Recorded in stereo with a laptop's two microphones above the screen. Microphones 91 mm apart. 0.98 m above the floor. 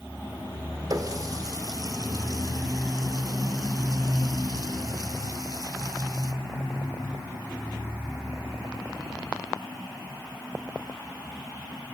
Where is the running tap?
45° right (ahead or behind), 1.2 m.